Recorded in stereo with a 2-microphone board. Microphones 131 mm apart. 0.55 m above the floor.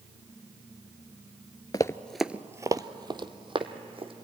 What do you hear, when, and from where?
1.7 s running footsteps: 30° left (ahead or behind), 0.5 m; by 4.1 s 45° right (ahead or behind), 1.9 m